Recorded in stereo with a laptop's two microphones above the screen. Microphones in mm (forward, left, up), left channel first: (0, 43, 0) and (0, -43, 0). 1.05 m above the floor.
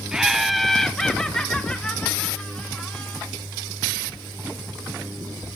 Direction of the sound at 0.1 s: 5° right (ahead or behind).